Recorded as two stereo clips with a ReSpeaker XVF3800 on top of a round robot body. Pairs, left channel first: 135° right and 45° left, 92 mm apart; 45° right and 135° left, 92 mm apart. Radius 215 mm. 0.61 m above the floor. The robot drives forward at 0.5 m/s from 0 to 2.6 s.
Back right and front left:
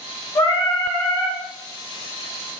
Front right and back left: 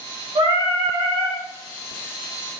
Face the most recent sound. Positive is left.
turn(degrees=175)